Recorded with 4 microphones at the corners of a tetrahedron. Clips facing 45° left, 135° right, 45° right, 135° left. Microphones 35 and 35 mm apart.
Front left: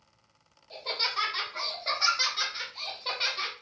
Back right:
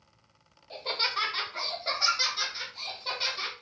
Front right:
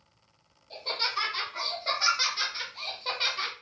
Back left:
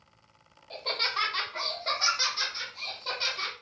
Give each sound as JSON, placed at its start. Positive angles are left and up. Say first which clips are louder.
{"t": 0.7, "sound": "laughter", "louder": "back right 1 dB, back left 1 dB", "azimuth_deg": 165, "distance_m": 1.1}